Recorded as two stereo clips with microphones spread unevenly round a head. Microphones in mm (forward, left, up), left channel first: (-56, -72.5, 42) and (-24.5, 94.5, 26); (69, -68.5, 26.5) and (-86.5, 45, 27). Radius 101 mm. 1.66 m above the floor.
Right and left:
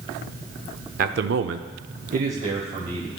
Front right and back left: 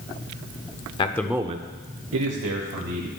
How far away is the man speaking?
About 0.6 m.